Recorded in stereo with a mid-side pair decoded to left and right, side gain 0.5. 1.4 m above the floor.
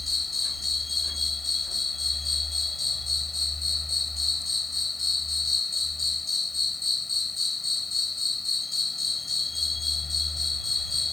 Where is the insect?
15° left.